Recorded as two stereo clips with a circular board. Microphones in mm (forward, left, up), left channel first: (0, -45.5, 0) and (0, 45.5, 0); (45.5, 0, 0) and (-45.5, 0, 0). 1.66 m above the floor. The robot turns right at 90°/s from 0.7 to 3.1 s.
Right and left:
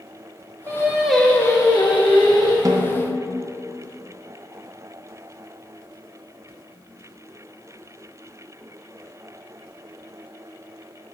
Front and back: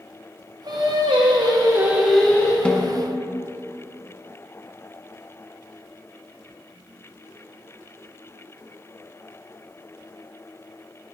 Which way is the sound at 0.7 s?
140° left.